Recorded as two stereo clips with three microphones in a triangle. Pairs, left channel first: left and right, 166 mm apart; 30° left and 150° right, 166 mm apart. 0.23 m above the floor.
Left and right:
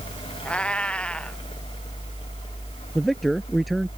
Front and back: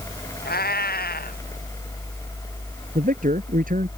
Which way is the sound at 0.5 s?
5° left.